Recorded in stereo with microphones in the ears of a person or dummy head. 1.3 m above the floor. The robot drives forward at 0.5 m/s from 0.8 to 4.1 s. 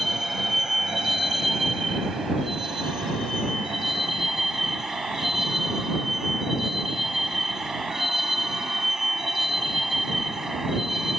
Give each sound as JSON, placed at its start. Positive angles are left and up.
{"t": 0.0, "sound": "a vehicle", "side_deg": -5}